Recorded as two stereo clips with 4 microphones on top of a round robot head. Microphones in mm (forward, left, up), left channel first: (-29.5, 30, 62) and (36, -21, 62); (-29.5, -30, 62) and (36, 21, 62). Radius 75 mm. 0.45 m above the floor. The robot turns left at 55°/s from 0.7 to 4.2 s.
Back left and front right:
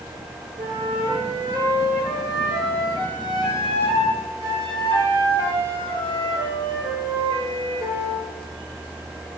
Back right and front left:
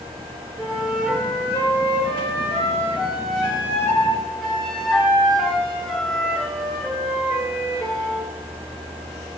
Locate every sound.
0.6 s a flute: 35° right, 6.5 m; by 8.3 s 130° left, 6.5 m